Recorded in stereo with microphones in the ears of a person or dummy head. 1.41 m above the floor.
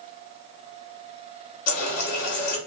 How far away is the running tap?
About 1.5 m.